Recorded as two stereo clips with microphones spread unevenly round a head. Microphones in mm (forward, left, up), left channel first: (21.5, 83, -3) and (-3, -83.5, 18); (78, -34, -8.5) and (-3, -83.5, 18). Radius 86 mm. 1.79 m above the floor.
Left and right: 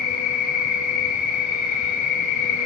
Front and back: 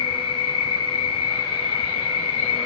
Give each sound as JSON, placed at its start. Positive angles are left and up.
{"t": 0.0, "sound": "an insect", "azimuth_deg": 50, "distance_m": 0.8}